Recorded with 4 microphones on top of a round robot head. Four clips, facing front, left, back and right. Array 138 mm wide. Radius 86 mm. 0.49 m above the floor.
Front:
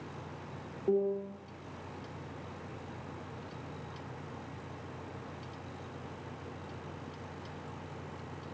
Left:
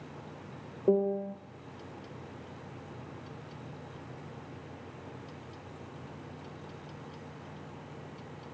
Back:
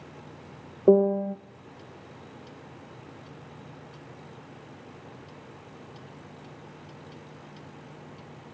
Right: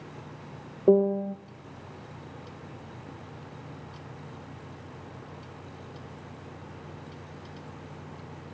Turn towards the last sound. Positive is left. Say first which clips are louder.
# right 6 dB, back 11 dB
turn(degrees=-155)